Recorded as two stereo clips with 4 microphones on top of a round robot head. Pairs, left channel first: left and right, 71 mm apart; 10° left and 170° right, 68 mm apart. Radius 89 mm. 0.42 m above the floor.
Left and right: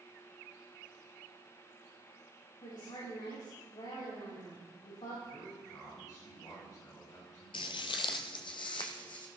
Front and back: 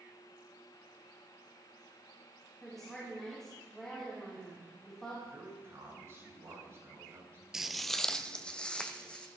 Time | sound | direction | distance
2.6 | a woman speaking | 95° left | 5 m
5.2 | a man speaking | 135° left | 7.5 m
7.5 | footsteps | 105° left | 0.5 m